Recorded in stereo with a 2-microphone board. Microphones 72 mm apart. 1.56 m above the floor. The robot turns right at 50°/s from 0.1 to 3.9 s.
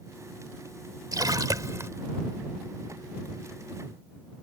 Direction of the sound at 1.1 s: 85° right.